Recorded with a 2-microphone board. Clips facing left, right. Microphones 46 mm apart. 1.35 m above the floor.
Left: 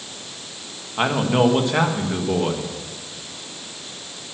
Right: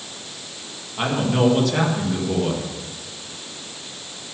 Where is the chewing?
I don't hear chewing.